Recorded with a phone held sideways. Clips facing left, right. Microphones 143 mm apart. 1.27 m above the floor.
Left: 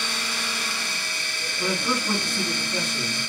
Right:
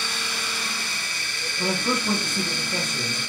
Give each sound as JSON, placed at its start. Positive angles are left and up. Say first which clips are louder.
{"t": 1.6, "sound": "a man speaking", "louder": "right 1 dB", "side_deg": -45, "distance_m": 1.6}